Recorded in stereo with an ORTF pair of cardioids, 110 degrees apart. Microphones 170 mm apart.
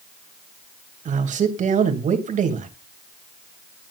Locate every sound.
1.1 s a man speaking: 50° right, 3 m